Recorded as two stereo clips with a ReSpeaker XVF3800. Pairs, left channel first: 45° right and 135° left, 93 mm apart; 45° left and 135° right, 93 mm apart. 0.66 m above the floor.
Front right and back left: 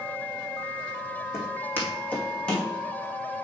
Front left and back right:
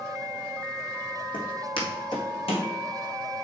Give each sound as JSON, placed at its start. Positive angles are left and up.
{"t": 1.3, "sound": "footsteps", "azimuth_deg": 15, "distance_m": 2.5}